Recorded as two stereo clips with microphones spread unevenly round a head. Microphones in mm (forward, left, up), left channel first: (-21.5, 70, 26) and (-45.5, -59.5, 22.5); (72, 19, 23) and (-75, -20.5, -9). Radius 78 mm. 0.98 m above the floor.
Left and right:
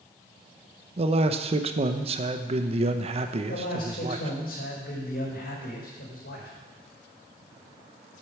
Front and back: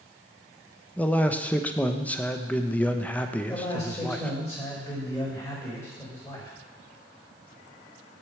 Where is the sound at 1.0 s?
75° right, 0.8 m.